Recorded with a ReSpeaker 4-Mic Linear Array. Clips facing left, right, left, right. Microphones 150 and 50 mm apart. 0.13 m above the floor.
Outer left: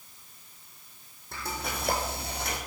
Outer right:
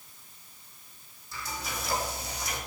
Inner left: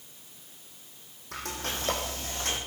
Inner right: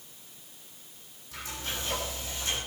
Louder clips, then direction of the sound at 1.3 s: Outer left 3 dB, inner left 3 dB; 60° left (ahead or behind).